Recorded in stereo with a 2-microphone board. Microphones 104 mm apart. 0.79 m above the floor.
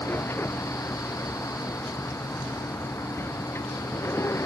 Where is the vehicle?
20° left (ahead or behind); by 4.5 s 25° left (ahead or behind).